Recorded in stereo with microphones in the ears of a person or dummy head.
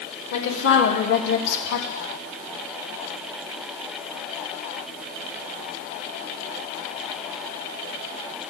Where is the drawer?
No drawer in this recording.